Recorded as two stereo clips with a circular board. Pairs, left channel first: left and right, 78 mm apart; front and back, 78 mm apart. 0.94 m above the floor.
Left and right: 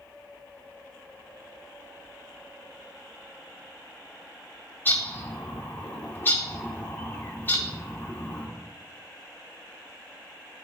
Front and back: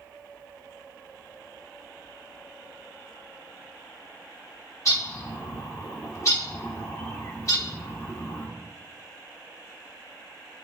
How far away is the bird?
About 0.7 m.